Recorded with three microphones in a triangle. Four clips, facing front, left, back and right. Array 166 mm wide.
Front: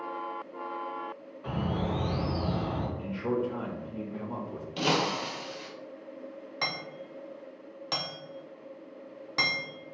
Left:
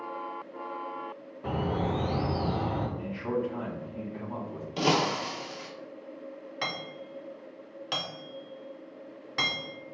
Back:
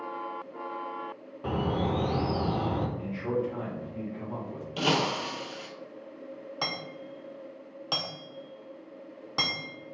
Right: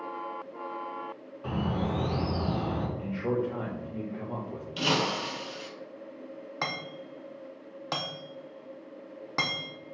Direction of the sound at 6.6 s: 105° right.